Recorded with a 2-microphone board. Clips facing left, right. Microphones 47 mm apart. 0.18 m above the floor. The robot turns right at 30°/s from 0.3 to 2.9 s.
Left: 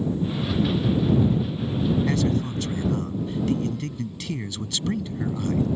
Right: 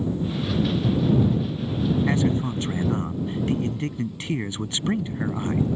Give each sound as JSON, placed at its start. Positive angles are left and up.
{"t": 2.1, "sound": "a man speaking", "side_deg": -25}